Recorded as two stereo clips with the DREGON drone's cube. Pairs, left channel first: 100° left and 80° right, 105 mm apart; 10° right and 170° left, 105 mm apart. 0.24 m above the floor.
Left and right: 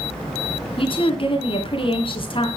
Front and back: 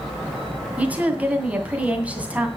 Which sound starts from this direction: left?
A woman speaking, at 0.8 s.